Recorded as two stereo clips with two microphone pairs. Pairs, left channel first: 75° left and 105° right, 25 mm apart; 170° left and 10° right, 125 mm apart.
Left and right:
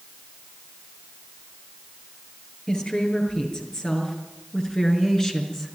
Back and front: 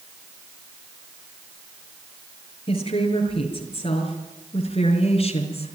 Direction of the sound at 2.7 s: 130° left.